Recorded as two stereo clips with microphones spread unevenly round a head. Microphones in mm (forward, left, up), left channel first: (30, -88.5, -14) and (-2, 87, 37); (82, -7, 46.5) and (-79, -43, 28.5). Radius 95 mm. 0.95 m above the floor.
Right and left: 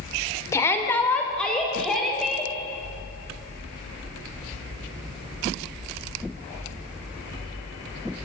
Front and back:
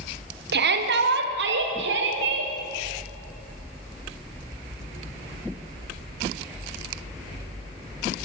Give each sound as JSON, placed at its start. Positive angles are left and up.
{"t": 0.5, "sound": "a shout", "azimuth_deg": -155, "distance_m": 3.0}